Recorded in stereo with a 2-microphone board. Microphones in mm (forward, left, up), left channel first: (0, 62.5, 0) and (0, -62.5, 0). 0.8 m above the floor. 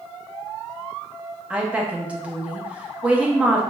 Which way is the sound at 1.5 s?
10° right (ahead or behind).